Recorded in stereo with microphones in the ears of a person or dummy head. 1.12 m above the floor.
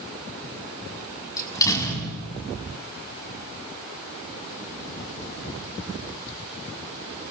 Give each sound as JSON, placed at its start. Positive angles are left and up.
{"t": 1.4, "sound": "a door slam", "side_deg": 20, "distance_m": 6.0}